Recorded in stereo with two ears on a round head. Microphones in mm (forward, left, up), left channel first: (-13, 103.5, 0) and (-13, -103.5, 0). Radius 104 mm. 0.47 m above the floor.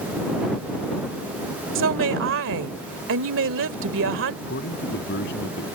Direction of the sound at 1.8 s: 60° right (ahead or behind).